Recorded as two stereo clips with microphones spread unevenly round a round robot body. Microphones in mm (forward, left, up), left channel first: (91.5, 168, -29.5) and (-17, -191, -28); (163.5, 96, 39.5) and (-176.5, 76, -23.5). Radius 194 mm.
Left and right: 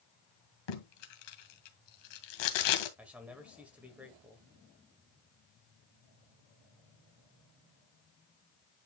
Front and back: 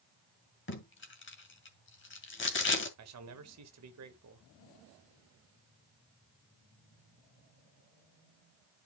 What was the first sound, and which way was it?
Tape being pulled, 65° left.